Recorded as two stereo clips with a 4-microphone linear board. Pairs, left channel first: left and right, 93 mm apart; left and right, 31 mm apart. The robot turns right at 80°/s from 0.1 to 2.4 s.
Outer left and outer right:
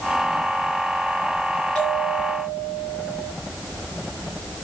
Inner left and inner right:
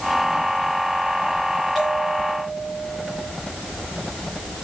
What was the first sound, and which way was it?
A bell, 170° left.